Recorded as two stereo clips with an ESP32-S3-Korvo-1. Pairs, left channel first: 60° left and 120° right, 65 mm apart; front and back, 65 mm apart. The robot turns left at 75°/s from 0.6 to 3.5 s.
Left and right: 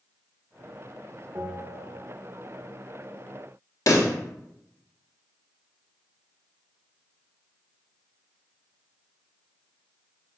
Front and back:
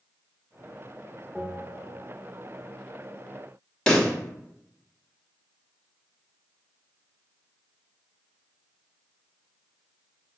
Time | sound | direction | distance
1.4 | a bell | 105° right | 0.8 m
3.9 | a pop | 70° left | 0.6 m